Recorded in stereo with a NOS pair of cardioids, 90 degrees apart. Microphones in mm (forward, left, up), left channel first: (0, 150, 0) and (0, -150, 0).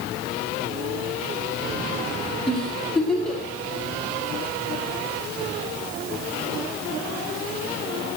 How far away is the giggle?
About 5 m.